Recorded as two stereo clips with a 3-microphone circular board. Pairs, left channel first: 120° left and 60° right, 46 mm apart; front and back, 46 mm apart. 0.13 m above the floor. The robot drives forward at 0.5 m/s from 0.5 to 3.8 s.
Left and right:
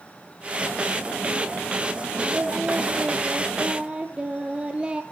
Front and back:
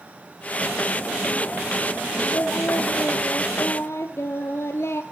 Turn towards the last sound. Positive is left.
turn(degrees=5)